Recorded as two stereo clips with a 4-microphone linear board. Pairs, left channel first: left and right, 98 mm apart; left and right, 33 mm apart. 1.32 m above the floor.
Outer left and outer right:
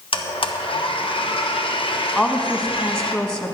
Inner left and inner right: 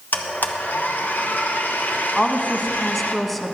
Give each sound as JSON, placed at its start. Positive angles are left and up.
{"t": 0.1, "sound": "a blender", "side_deg": 65, "distance_m": 1.0}
{"t": 2.1, "sound": "a woman speaking", "side_deg": 10, "distance_m": 1.4}